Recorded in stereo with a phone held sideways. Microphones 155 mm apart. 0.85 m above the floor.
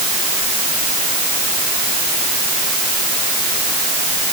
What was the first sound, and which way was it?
Only background noise.